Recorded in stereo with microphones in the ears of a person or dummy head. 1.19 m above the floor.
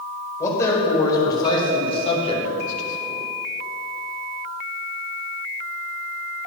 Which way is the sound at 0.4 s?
15° left (ahead or behind).